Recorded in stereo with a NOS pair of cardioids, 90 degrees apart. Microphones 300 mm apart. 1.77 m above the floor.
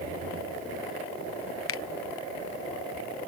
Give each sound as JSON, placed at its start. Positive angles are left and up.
{"t": 1.7, "sound": "a finger snap", "azimuth_deg": 50}